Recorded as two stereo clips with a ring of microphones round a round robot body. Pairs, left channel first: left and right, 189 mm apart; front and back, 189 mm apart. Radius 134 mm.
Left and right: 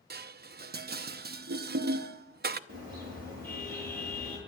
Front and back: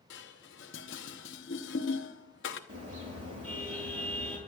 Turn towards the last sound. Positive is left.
turn(degrees=-150)